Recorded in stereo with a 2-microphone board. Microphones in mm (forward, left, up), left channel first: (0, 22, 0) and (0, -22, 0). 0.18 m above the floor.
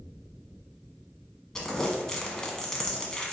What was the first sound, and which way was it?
Crumpling, 15° left (ahead or behind).